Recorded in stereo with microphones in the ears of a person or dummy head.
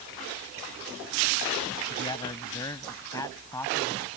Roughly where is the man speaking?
Left.